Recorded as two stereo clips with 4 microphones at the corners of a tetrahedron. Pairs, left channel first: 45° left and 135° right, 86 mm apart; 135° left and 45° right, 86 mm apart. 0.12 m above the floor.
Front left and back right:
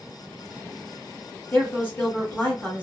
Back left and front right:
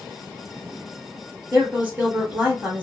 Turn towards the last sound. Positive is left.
turn(degrees=0)